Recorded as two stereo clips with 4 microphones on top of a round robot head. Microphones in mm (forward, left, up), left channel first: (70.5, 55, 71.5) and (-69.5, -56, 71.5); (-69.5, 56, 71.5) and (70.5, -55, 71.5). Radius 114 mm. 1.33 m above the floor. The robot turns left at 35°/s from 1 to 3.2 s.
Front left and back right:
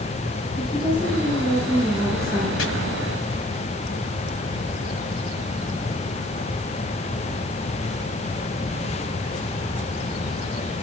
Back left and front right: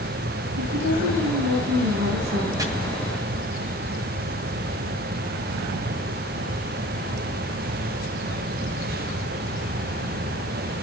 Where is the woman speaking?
25° right, 7 m; by 2.5 s 75° right, 7 m.